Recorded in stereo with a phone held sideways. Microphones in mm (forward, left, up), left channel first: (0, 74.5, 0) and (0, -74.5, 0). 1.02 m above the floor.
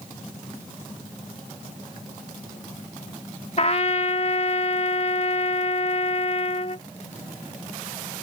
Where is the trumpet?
45° left (ahead or behind).